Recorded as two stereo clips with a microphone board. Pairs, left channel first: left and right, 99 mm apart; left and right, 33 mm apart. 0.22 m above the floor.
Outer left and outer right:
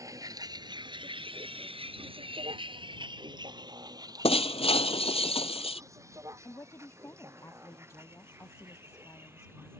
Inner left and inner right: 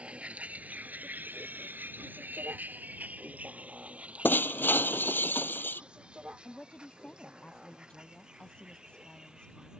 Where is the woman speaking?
30° left (ahead or behind).